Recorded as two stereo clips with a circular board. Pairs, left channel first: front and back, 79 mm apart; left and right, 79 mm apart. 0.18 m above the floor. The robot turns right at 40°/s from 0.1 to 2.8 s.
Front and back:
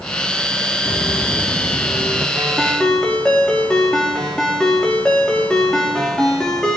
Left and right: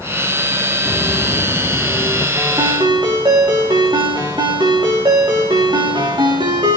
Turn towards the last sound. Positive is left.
turn(degrees=-80)